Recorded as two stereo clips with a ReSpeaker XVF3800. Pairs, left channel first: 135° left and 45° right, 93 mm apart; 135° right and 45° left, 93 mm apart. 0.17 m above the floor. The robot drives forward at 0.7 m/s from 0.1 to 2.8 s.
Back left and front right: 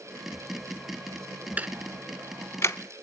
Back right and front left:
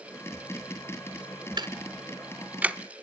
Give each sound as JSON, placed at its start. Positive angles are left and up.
{"t": 1.6, "sound": "ticking", "azimuth_deg": 25, "distance_m": 0.9}